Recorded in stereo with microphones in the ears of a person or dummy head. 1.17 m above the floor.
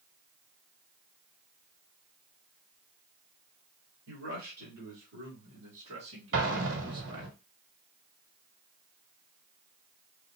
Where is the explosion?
65° right (ahead or behind), 1.4 m.